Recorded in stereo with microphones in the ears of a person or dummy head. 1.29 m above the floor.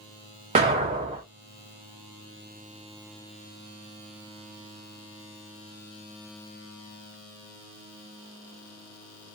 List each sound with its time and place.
0.6 s an explosion: 25° right (ahead or behind), 0.5 m